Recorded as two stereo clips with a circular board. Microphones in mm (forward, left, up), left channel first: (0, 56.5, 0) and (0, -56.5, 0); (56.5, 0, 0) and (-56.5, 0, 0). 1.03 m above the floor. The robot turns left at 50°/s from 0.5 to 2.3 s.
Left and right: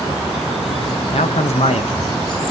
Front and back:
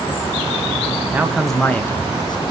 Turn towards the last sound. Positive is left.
turn(degrees=50)